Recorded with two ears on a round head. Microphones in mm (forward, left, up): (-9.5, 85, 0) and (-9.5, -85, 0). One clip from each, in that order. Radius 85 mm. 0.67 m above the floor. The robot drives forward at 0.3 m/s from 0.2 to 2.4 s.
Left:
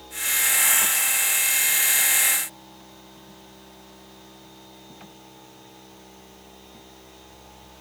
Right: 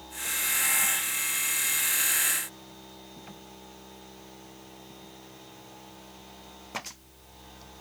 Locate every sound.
Only background noise.